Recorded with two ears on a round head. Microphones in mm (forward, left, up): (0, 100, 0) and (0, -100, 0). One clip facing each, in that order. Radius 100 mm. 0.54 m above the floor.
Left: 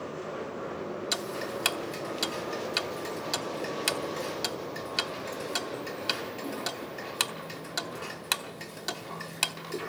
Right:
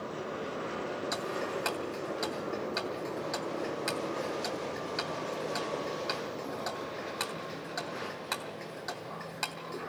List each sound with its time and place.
1.1 s ticking: 45° left (ahead or behind), 0.8 m